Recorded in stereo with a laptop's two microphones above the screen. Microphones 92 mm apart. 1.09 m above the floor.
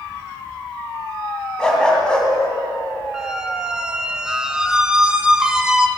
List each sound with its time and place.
1.6 s a dog barking: 10° left (ahead or behind), 3 m
3.1 s a squeak: 10° right (ahead or behind), 1.9 m